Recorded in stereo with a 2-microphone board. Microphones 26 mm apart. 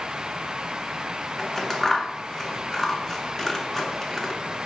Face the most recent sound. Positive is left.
turn(degrees=10)  # may be behind; listen again after turning